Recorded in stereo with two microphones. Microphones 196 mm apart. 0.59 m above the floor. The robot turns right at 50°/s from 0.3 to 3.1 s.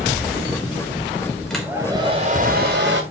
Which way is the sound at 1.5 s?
175° left.